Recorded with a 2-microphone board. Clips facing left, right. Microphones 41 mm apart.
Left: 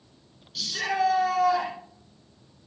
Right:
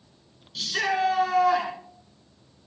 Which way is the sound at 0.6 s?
35° right (ahead or behind).